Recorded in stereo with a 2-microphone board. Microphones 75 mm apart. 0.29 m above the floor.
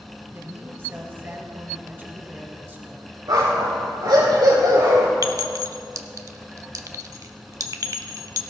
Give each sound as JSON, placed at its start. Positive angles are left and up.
{"t": 0.3, "sound": "a woman speaking", "side_deg": -30, "distance_m": 2.0}
{"t": 3.3, "sound": "a dog barking", "side_deg": -70, "distance_m": 3.5}
{"t": 5.2, "sound": "a clink", "side_deg": -50, "distance_m": 0.8}